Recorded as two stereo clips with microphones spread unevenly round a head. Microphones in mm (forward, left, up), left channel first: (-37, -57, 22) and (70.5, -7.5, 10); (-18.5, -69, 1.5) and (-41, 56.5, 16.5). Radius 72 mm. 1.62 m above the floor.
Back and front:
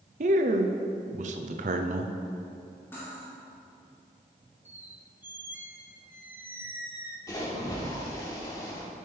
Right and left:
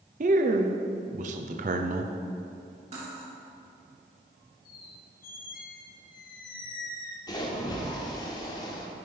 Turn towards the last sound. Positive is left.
turn(degrees=-130)